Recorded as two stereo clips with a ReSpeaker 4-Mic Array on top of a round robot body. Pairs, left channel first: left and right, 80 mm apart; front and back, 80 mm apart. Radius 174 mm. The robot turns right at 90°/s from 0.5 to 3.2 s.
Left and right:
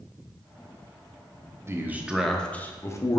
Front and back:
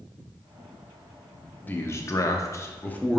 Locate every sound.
1.7 s a man speaking: 55° right, 0.8 m; by 3.2 s 85° left, 0.8 m